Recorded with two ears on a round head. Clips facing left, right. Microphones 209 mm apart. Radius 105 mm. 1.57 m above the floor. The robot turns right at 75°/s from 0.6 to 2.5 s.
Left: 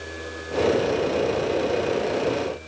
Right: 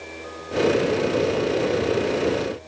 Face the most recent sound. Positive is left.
No sound to turn to.